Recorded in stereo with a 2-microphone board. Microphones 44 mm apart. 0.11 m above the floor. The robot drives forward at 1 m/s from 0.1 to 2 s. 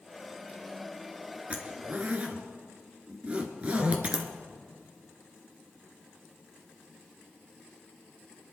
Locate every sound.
1.5 s a zipper: 30° right (ahead or behind), 2 m